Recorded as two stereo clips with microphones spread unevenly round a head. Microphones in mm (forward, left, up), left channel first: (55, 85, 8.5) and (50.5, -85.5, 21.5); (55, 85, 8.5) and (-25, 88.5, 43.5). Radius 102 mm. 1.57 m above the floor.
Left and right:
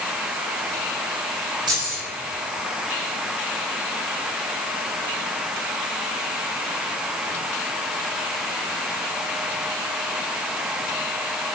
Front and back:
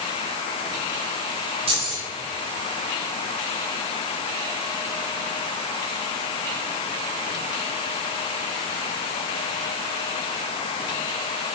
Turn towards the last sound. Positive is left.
turn(degrees=-160)